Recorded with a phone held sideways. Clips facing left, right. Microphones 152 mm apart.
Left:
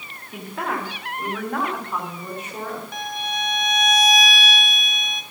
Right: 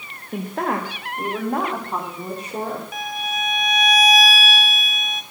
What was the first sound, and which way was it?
A woman speaking, 50° right (ahead or behind).